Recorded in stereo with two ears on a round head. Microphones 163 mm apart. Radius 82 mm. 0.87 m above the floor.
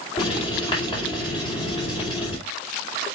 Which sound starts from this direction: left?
Writing, at 0.2 s.